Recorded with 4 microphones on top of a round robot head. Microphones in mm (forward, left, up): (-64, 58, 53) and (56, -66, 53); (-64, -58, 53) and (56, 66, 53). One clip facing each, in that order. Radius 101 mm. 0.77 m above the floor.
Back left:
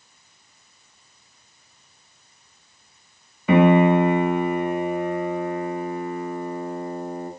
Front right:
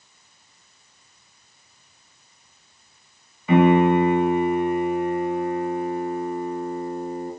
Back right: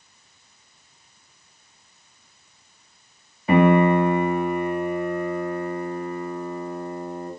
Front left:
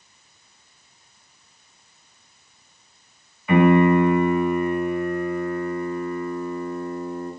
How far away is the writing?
I don't hear writing.